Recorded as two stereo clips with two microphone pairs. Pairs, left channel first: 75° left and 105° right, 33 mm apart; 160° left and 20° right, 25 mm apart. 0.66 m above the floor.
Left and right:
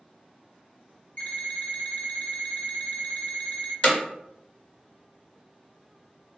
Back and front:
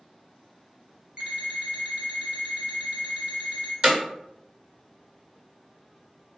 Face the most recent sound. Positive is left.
turn(degrees=30)